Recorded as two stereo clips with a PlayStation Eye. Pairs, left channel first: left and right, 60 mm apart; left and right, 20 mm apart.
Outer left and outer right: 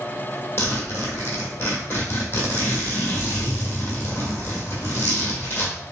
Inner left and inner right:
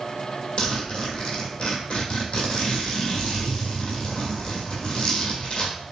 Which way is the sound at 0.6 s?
40° left (ahead or behind).